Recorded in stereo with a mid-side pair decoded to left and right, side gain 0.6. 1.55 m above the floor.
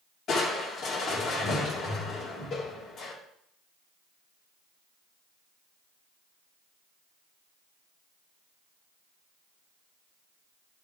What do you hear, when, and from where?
0.3 s crushing: 50° left, 3.5 m